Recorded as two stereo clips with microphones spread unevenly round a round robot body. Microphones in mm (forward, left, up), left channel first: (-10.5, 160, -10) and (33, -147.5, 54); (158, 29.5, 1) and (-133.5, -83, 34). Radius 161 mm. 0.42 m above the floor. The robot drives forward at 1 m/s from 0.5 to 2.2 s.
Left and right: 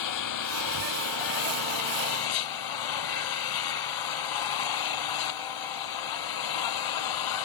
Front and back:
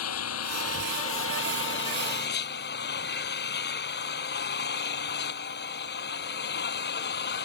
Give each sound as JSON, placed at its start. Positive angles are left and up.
{"t": 0.0, "sound": "an engine running", "azimuth_deg": 70}